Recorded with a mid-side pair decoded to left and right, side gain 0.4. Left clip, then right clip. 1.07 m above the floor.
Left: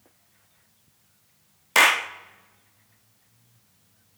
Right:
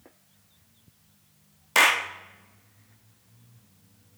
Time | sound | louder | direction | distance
1.8 | a clap | left 2 dB | 20° left | 1.6 m